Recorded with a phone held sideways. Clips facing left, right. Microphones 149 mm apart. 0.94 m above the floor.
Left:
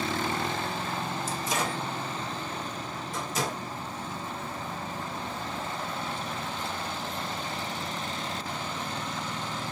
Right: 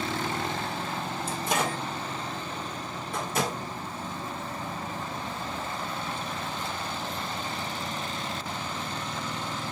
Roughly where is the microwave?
Right.